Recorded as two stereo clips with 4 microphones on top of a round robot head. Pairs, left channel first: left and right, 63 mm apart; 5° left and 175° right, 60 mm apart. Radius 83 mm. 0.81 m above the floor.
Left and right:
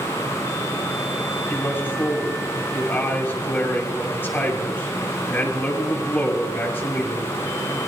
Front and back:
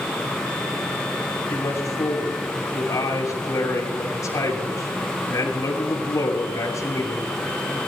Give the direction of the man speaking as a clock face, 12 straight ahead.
11 o'clock.